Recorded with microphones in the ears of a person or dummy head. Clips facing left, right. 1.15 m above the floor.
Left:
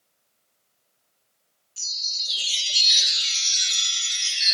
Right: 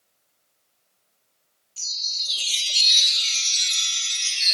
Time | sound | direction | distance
1.8 | a chime | 10° left (ahead or behind) | 1.1 m